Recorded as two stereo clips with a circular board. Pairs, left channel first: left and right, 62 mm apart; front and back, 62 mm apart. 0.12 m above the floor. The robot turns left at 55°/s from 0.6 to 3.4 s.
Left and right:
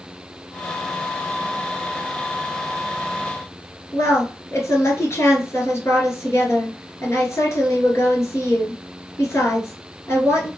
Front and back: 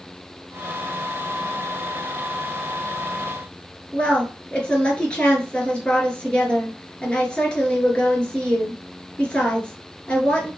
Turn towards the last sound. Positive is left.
turn(degrees=70)